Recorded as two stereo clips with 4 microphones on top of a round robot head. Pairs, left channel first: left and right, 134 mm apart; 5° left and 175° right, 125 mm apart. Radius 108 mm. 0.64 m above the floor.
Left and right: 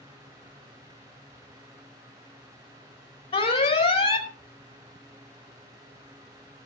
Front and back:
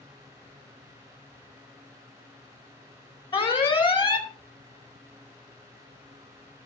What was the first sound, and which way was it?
An alarm, 45° left.